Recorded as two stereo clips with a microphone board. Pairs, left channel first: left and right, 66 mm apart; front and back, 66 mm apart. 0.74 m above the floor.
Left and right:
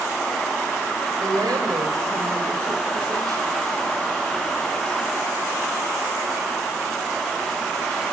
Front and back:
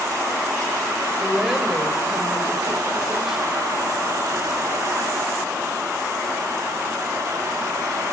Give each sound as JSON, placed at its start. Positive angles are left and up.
{"t": 1.2, "sound": "a woman speaking", "azimuth_deg": -95, "distance_m": 2.5}